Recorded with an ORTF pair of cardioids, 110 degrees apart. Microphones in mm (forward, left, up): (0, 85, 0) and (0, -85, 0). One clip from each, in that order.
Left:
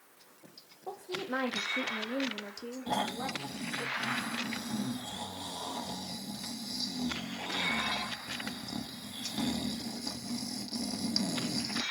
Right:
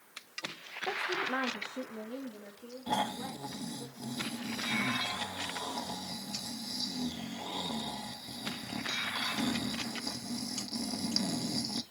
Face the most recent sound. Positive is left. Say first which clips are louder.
# even
turn(degrees=0)